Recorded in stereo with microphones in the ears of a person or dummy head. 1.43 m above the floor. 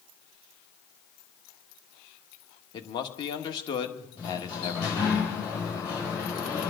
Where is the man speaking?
30° left (ahead or behind), 1.5 m.